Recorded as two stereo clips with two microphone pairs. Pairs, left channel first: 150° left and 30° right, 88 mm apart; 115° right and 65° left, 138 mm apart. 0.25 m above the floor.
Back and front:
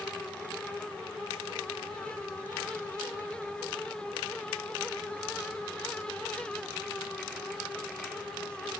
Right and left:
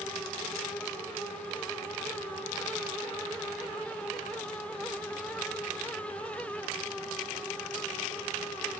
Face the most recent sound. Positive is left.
No sound to turn to.